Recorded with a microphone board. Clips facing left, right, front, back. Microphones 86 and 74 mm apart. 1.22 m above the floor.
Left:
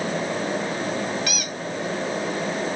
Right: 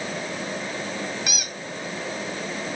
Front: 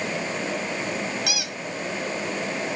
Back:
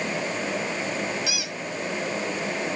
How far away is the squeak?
About 0.9 m.